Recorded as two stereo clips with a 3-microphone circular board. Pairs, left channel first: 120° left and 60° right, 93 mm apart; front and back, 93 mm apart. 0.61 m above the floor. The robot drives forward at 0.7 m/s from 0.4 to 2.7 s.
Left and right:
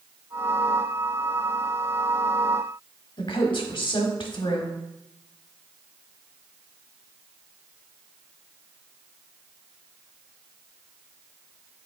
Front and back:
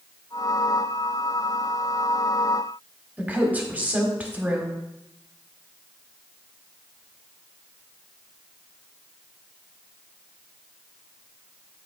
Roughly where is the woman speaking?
Left.